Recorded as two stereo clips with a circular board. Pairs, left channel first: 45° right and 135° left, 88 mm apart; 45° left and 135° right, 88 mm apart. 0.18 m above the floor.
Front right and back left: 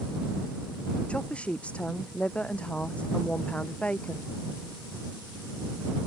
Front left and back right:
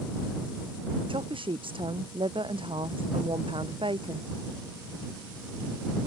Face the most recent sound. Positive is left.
turn(degrees=-120)